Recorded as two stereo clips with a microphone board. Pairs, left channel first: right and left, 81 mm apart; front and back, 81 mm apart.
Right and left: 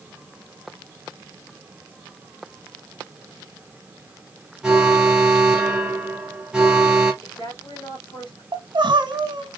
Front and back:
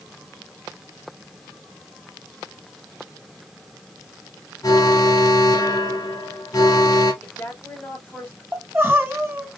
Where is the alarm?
10° left, 1.5 m.